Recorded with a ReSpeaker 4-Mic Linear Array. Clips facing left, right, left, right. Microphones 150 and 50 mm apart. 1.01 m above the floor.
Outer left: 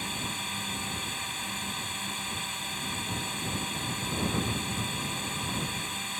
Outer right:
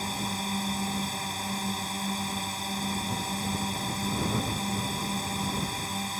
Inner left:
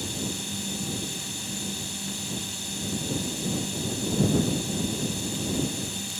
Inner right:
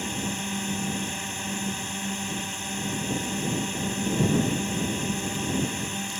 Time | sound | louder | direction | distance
0.0 | a drone | outer right 5 dB, inner right 2 dB | 35° right (ahead or behind) | ?